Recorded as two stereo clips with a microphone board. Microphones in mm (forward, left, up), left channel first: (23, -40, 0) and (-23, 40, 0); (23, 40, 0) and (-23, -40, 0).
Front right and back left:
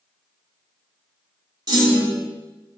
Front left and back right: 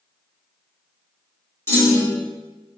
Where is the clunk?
110° left, 1.0 m.